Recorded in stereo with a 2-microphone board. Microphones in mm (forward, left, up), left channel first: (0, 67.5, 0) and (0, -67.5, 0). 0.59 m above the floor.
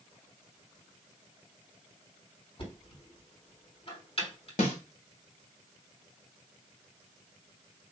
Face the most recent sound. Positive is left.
turn(degrees=75)  # may be behind; listen again after turning